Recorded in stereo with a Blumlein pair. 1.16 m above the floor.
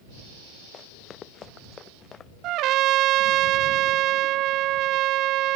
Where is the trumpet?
35° right.